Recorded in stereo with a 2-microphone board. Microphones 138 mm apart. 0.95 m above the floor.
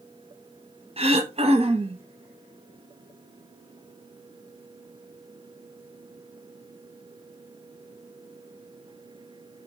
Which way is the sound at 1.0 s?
45° right (ahead or behind).